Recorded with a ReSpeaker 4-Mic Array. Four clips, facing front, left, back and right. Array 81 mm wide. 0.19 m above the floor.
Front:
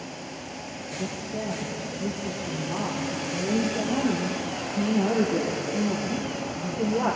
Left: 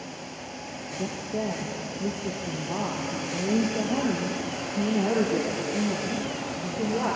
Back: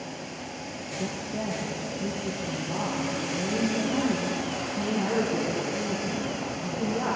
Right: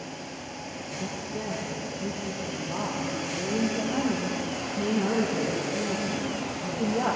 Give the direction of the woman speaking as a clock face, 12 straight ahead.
9 o'clock.